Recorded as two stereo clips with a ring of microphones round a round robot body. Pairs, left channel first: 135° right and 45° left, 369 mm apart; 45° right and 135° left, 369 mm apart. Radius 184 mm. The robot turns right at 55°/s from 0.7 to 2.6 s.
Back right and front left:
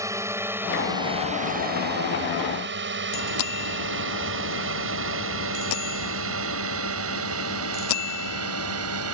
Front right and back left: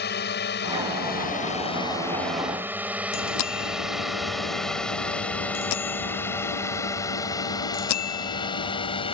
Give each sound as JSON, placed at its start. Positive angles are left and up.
{"t": 0.0, "sound": "a drone", "azimuth_deg": -30}
{"t": 3.1, "sound": "a bicycle bell", "azimuth_deg": -90}